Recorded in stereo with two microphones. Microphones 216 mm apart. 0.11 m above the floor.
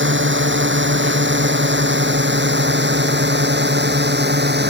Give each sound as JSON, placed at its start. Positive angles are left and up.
{"t": 0.0, "sound": "a drone", "side_deg": -60}